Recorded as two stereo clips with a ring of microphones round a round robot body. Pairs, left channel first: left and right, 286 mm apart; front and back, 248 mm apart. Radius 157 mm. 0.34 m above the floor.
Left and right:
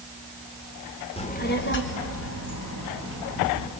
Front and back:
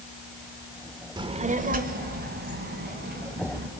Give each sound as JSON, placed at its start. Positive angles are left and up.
{"t": 1.2, "sound": "a child speaking", "azimuth_deg": 130, "distance_m": 1.0}